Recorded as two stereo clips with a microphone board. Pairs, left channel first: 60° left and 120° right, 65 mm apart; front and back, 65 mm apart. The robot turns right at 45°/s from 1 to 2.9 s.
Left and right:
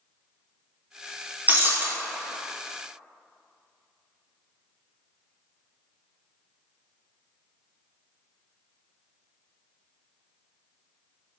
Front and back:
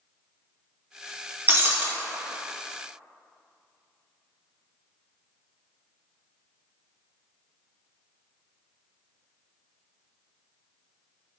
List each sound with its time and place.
1.5 s breaking glass: 160° right, 0.6 m; by 1.9 s 145° right, 0.6 m